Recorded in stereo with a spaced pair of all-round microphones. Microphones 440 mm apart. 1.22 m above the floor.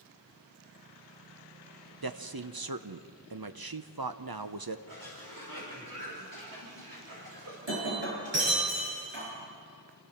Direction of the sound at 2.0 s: 55° right (ahead or behind).